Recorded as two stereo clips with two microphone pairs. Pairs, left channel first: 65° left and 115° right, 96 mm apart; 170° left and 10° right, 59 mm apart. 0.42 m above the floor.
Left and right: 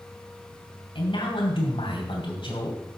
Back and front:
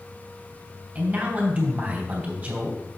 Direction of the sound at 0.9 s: 40° left.